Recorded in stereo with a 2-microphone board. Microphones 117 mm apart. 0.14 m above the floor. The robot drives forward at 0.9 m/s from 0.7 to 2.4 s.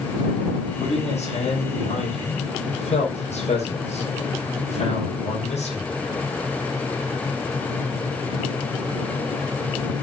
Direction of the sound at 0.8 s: 70° left (ahead or behind).